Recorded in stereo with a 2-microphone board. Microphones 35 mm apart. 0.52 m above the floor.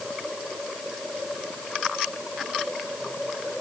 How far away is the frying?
No frying in this recording.